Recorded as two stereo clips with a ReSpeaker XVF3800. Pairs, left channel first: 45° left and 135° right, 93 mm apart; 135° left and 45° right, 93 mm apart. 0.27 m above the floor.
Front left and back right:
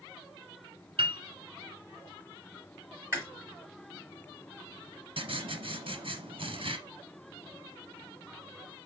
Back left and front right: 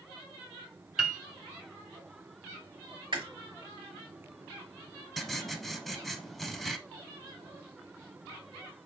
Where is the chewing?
65° right, 3 m.